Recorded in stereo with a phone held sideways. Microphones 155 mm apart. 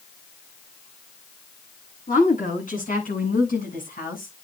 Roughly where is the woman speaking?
Left.